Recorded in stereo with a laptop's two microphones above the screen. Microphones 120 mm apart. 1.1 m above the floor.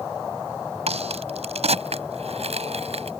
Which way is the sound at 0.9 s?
60° right (ahead or behind).